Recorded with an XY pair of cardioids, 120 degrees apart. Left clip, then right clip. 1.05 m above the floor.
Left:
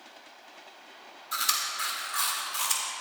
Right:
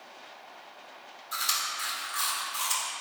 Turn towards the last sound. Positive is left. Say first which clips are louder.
# left 1 dB
turn(degrees=20)